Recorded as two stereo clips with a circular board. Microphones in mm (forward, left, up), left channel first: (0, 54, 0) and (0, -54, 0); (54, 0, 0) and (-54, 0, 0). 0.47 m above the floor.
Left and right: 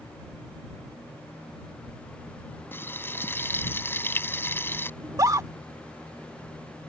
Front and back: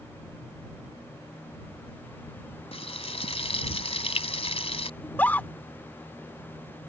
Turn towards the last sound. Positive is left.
turn(degrees=-60)